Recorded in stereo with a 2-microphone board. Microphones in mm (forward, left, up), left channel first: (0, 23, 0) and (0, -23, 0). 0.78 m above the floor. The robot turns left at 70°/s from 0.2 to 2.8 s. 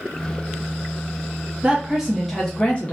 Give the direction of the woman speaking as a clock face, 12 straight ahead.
5 o'clock.